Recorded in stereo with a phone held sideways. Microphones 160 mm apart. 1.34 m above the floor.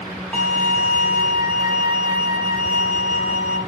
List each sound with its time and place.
0.3 s a violin: 10° left (ahead or behind), 0.9 m